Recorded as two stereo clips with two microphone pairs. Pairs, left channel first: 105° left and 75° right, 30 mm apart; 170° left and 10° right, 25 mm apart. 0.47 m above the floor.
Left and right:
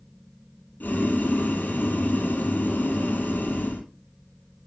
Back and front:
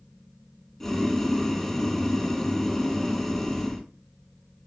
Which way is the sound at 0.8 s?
85° left.